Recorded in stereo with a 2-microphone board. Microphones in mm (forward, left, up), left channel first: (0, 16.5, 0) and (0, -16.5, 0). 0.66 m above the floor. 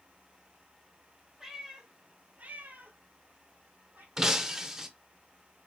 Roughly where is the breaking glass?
Centre.